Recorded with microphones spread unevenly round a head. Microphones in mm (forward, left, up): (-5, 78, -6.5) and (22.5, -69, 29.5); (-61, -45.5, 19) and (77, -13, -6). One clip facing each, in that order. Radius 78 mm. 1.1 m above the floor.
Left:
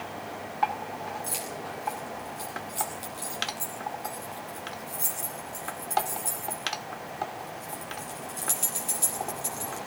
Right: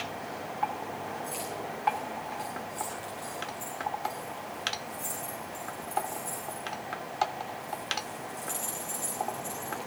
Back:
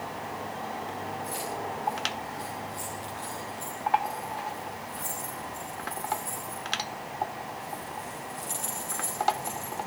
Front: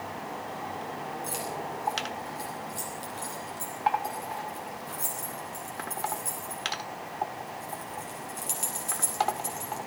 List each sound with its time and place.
1.2 s keys jangling: 65° left, 9.5 m